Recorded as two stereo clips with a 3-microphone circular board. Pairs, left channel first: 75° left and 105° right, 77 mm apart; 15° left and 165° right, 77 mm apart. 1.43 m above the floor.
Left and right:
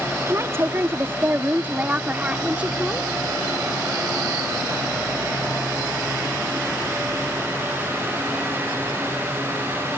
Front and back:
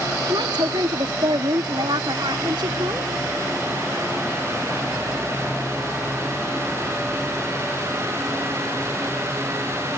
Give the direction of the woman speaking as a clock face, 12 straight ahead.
5 o'clock.